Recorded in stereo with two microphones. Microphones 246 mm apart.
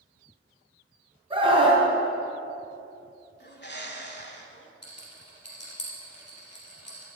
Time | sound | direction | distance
1.3 | a scream | 20° right (ahead or behind) | 3 m
3.4 | a bird | 45° left (ahead or behind) | 1.3 m
4.8 | a rattle | 85° left | 3 m